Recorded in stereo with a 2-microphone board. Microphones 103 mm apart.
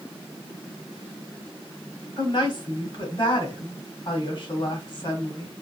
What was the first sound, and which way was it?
A woman speaking, 50° left (ahead or behind).